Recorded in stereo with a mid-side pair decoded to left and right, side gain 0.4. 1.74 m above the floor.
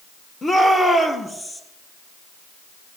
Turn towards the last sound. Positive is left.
turn(degrees=20)